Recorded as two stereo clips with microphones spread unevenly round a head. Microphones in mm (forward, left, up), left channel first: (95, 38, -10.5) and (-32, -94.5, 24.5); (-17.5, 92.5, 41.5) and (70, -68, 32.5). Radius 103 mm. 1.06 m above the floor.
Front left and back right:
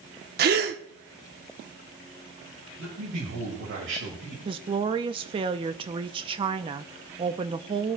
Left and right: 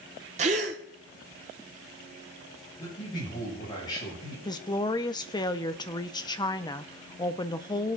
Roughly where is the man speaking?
Behind.